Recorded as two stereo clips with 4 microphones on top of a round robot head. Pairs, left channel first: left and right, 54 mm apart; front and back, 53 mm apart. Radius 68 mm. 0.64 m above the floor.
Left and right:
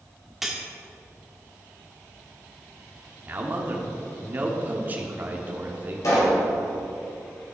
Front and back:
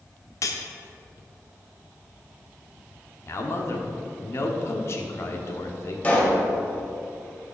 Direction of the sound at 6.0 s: 60° left.